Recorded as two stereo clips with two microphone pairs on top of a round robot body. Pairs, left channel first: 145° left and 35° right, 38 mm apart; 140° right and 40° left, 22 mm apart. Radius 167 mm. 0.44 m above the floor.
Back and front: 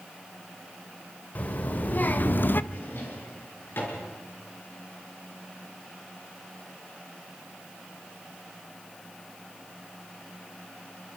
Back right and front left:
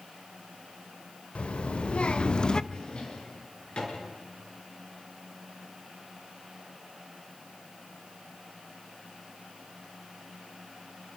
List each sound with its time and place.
1.4 s a child speaking: 165° right, 2 m; by 2.6 s 175° left, 0.8 m
2.7 s a drawer: straight behind, 4.5 m